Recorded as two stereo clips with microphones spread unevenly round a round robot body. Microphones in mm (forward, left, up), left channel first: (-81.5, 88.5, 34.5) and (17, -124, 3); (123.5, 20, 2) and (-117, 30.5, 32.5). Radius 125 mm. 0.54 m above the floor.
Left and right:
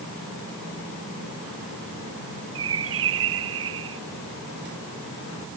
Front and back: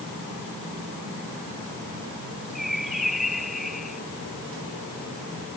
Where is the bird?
95° right.